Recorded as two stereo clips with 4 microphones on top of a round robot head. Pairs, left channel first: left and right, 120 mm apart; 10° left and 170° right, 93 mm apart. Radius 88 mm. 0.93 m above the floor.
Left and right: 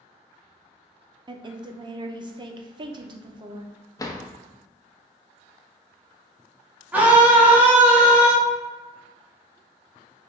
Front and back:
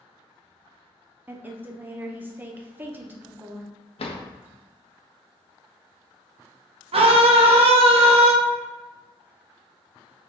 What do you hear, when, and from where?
1.3 s a woman speaking: 110° right, 0.6 m
4.0 s a drawer: 25° left, 0.6 m
6.9 s a scream: 170° right, 0.8 m